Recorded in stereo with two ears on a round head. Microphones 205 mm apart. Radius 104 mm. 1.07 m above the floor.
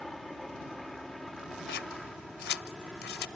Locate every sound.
0.0 s a helicopter: centre (ahead or behind)
1.7 s scissors: 45° left (ahead or behind)